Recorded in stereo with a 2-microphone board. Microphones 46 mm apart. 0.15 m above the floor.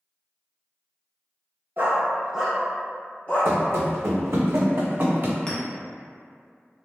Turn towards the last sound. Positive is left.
turn(degrees=20)  # may be behind; listen again after turning